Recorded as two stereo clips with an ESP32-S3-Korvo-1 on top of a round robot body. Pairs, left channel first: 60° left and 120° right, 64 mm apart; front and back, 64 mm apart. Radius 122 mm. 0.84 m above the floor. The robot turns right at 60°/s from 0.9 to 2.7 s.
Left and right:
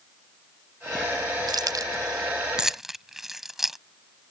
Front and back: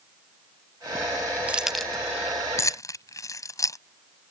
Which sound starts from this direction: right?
Keys jangling, at 1.5 s.